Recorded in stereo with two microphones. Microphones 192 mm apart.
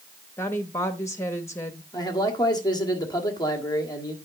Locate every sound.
0.4 s a woman speaking: 15° left (ahead or behind), 0.8 m
1.9 s a man speaking: 20° left (ahead or behind), 1.7 m